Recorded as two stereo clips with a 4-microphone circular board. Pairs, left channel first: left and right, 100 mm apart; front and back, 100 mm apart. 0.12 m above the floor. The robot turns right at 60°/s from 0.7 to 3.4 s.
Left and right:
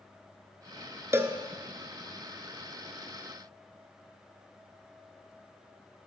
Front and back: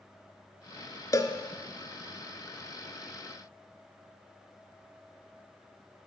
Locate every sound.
1.1 s a cowbell: 40° right, 0.7 m; by 1.4 s 25° right, 0.7 m